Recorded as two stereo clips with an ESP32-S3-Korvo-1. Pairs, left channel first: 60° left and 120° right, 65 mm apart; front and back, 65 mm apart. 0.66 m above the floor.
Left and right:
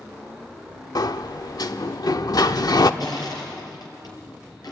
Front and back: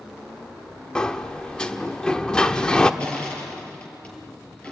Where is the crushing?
75° left, 5 m.